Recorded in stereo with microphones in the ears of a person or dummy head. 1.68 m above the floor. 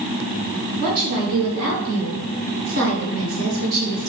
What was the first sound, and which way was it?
A woman speaking, 50° right (ahead or behind).